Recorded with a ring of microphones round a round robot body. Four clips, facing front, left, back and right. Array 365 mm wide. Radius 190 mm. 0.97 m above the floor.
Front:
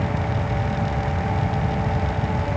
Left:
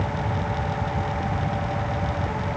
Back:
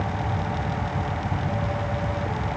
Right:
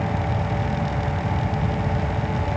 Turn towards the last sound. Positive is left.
No sound to turn to.